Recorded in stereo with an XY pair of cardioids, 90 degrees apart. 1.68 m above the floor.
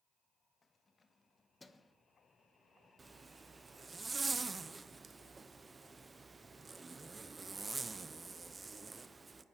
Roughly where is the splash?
No splash in this recording.